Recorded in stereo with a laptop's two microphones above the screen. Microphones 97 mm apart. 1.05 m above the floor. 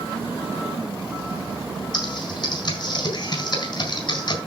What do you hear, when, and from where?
1.9 s typing on a keyboard: 55° left (ahead or behind), 4 m